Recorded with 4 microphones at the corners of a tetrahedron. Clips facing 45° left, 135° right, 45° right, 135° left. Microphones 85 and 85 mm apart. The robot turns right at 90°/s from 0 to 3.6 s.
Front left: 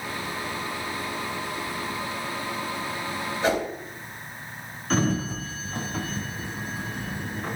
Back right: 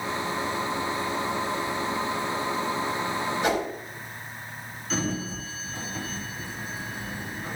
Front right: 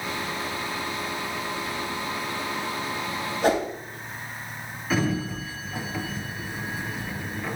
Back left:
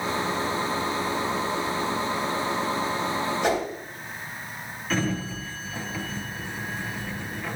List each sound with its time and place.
3.4 s a whoosh: 10° right, 2.5 m; by 3.7 s 5° left, 2.5 m
4.9 s a sliding door: 35° left, 0.8 m